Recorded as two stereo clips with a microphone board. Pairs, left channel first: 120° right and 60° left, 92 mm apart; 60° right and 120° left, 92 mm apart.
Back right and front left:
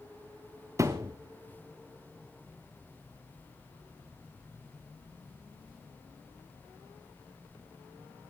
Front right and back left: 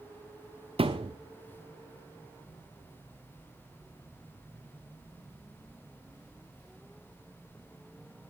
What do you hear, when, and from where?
0.8 s a thud: 115° left, 1.6 m